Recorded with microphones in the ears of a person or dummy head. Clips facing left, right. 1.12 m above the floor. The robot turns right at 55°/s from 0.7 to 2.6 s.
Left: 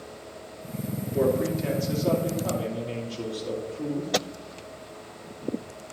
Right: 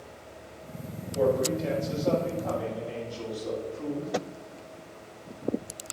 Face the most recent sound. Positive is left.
turn(degrees=140)